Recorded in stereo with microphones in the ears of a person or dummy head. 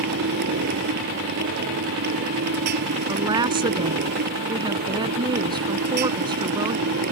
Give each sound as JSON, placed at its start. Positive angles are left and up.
{"t": 0.0, "sound": "a motorcycle", "side_deg": -50}
{"t": 3.1, "sound": "a woman speaking", "side_deg": -25}